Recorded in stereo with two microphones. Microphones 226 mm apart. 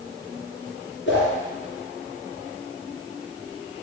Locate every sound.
1.1 s a whoosh: 55° left (ahead or behind), 3.5 m